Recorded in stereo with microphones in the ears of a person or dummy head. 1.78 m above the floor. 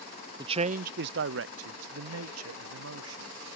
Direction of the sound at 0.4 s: 25° right (ahead or behind).